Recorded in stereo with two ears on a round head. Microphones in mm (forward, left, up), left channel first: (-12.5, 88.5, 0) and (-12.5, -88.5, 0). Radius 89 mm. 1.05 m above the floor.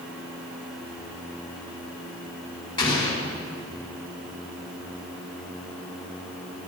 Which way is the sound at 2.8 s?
25° left (ahead or behind).